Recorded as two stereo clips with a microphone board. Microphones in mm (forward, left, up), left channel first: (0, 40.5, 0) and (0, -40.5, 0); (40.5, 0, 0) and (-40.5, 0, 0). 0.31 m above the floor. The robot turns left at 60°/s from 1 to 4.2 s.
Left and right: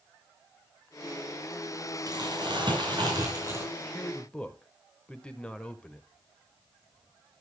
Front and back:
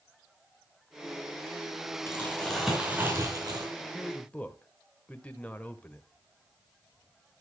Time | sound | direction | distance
2.1 | crumpling | 55° right | 5.5 m
3.8 | a man speaking | 65° left | 0.9 m